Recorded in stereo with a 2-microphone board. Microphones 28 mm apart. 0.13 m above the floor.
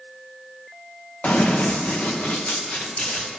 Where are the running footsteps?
80° left, 1.4 m; by 3.3 s 85° left, 3.5 m.